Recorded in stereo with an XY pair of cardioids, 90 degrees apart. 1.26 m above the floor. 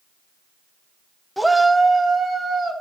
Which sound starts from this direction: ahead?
A shout, at 1.4 s.